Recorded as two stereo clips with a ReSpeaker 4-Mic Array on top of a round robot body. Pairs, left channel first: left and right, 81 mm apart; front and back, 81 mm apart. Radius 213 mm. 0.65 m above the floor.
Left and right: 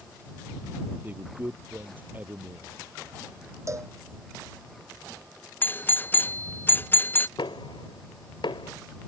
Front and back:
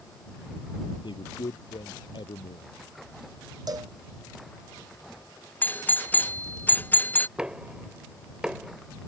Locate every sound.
1.0 s a man speaking: 25° right
3.7 s a cowbell: 140° right
5.6 s a doorbell: 50° left
7.4 s knocking: 100° left